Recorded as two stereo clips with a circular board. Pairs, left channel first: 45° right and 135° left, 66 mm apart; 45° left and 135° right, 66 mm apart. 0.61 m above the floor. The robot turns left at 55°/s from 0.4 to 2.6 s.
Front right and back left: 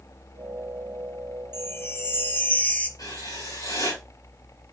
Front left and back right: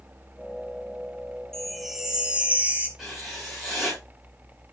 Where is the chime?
35° right, 0.8 m; by 2.9 s 90° right, 0.8 m.